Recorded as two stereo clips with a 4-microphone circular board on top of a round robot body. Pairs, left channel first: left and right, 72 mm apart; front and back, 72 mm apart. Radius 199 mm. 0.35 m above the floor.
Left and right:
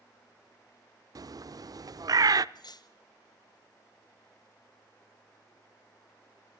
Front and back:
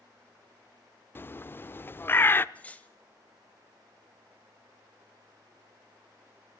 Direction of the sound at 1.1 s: 60° right.